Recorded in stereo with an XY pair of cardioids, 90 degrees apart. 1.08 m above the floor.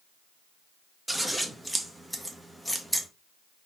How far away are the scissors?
About 1.3 m.